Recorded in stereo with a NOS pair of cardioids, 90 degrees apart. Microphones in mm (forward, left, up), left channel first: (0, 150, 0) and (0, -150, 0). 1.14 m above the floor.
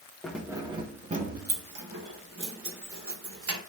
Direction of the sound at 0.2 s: Straight ahead.